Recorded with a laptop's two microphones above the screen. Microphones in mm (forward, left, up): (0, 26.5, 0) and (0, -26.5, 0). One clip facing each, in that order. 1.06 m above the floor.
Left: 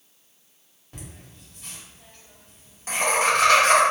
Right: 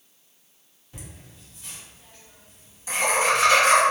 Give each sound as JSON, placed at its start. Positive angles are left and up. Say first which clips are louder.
{"t": 0.9, "sound": "laughter", "louder": "left 1 dB", "side_deg": 50, "distance_m": 1.6}